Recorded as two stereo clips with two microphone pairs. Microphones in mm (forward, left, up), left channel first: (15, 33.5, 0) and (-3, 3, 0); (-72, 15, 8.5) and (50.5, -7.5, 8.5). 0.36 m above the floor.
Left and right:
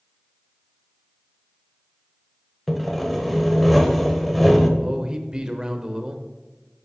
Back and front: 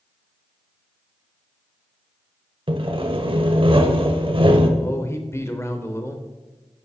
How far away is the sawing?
About 1.0 m.